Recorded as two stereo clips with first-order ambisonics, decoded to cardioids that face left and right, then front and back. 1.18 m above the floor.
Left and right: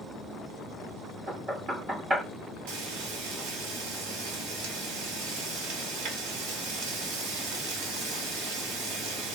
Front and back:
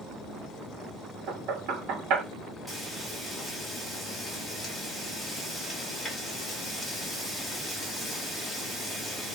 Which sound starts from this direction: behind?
Knocking, at 1.3 s.